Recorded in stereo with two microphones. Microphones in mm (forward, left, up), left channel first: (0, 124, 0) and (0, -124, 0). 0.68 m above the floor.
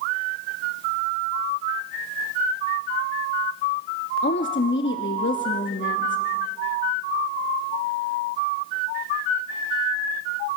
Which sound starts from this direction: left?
A woman speaking, at 4.2 s.